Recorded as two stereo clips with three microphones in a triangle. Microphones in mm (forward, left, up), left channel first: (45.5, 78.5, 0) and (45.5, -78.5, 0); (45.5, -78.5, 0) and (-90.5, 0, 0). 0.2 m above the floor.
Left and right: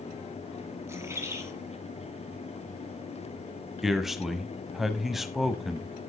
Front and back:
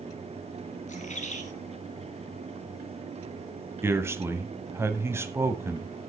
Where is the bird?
20° right, 2 m.